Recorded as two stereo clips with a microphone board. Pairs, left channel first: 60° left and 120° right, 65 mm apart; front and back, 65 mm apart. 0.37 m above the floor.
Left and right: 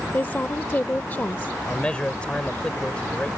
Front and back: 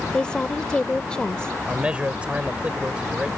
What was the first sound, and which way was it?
A woman speaking, 60° left.